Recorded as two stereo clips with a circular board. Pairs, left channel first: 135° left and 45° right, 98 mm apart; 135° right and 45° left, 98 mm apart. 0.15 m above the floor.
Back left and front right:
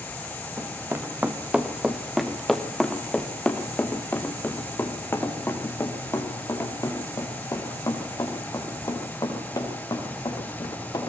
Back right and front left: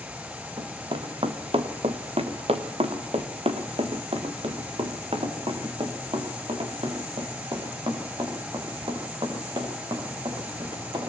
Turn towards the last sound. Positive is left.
turn(degrees=85)